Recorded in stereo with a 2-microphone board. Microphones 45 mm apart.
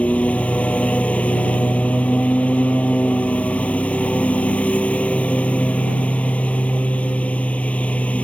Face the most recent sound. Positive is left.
turn(degrees=30)  # may be behind; listen again after turning